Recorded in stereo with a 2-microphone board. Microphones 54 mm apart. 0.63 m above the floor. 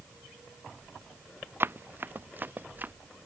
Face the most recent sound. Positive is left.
turn(degrees=-35)  # may be behind; listen again after turning